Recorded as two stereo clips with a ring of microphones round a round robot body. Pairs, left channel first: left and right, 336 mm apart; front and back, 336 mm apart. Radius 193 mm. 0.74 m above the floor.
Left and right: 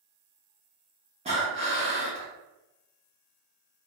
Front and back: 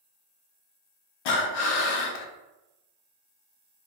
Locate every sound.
1.2 s breathing: 15° right, 0.6 m